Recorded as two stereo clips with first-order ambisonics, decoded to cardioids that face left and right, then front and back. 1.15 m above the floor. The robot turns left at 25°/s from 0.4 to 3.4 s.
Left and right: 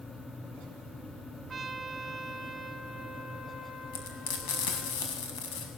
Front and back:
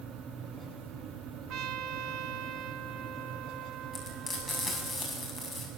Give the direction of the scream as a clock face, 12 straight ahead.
No scream in this recording.